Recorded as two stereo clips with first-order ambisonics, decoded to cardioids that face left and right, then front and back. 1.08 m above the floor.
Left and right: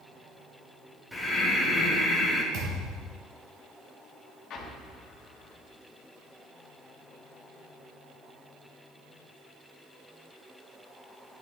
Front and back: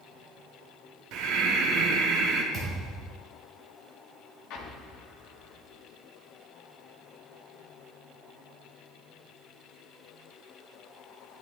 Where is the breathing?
175° right, 1.3 m.